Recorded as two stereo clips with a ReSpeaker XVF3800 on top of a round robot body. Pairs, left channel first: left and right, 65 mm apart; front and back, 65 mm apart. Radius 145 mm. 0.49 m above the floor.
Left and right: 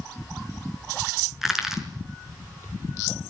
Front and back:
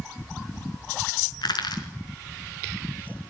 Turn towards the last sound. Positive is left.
turn(degrees=-5)